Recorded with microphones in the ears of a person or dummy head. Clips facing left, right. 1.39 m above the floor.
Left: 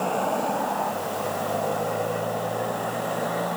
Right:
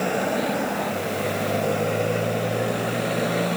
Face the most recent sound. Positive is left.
turn(degrees=-30)  # may be behind; listen again after turning